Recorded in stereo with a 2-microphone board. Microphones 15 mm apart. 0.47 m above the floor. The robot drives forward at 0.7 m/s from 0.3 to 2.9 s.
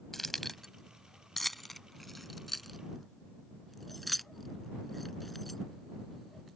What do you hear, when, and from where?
0.1 s keys jangling: 20° left (ahead or behind); by 5.6 s 10° left (ahead or behind)